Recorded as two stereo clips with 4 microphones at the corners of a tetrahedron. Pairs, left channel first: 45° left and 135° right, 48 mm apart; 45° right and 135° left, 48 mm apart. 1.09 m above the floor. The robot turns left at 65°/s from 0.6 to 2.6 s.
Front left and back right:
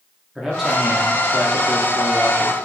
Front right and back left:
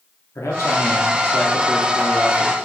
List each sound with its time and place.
0.3 s a man speaking: 55° right, 2.5 m; by 2.6 s 175° left, 2.5 m